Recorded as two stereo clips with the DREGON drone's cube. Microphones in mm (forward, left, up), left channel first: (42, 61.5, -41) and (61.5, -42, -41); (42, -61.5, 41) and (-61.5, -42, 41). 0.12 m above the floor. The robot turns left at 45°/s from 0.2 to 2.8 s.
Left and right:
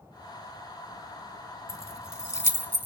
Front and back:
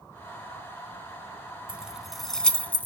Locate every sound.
1.7 s keys jangling: 100° left, 0.8 m; by 2.9 s 50° left, 0.8 m